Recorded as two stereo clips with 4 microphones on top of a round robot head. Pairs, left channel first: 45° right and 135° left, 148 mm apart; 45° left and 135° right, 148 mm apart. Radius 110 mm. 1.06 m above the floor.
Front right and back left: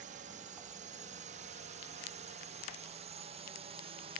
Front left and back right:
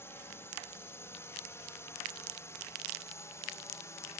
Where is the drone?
115° left; by 4.2 s 110° left.